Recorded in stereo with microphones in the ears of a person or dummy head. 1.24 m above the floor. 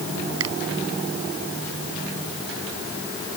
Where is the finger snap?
85° right.